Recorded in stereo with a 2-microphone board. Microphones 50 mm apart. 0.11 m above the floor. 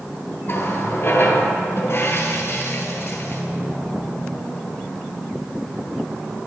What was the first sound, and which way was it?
A running tap, 45° left (ahead or behind).